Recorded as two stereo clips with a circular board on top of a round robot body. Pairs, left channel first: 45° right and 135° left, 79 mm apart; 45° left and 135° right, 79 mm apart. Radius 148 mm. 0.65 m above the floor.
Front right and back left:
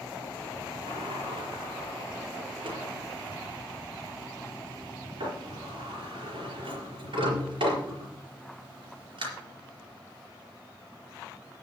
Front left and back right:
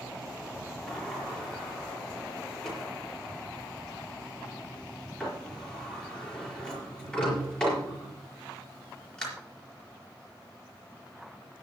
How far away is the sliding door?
About 4.5 m.